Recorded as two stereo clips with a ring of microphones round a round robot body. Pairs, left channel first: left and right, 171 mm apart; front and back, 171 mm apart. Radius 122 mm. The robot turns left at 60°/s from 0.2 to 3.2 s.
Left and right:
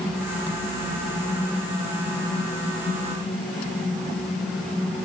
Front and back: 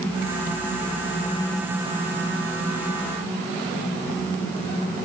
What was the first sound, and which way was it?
Only background noise.